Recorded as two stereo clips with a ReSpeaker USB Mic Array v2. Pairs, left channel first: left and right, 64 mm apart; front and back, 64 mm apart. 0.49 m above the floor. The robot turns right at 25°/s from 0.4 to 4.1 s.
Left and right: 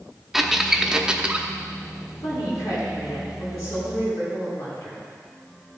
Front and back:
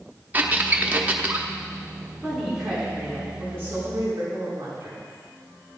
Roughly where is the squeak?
Behind.